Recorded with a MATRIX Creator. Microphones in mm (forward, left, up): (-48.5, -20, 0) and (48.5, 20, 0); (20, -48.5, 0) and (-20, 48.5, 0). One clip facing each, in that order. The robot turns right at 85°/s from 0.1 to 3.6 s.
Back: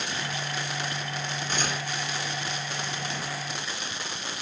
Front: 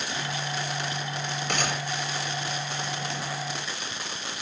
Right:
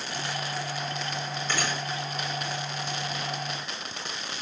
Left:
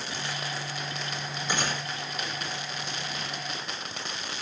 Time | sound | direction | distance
1.5 | a gunshot | 35° left | 9 m